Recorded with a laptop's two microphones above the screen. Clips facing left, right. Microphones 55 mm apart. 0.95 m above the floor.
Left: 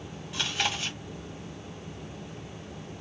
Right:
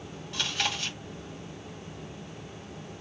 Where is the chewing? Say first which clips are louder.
Left 1 dB; 10° left (ahead or behind), 1.9 m.